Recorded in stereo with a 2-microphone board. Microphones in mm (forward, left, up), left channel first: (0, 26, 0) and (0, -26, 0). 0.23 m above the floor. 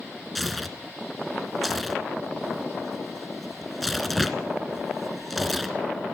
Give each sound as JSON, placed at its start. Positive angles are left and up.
{"t": 0.3, "sound": "tearing paper", "side_deg": 0, "distance_m": 2.0}